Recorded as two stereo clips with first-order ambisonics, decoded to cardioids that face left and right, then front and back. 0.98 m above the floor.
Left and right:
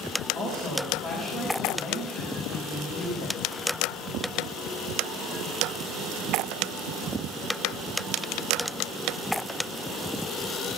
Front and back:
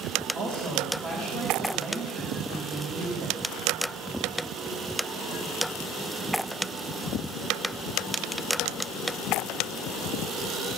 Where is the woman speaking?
175° right, 4.5 m.